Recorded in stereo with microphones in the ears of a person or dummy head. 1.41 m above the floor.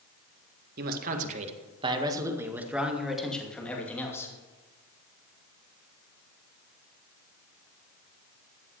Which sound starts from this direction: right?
A man speaking, at 0.8 s.